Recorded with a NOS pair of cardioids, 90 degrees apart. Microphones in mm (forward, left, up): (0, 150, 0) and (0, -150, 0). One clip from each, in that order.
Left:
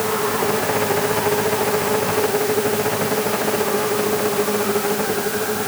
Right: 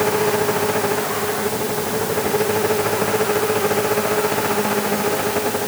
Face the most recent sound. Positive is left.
No sound to turn to.